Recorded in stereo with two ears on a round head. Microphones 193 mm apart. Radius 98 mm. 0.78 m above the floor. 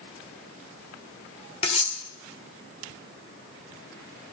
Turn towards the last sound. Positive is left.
turn(degrees=30)  # may be behind; listen again after turning